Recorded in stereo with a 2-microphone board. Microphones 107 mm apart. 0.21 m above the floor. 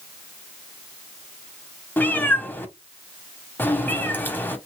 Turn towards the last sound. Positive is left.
turn(degrees=15)  # may be behind; listen again after turning